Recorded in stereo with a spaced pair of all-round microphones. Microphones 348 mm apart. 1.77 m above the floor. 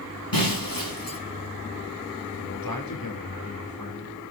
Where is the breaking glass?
75° left (ahead or behind), 8.5 m.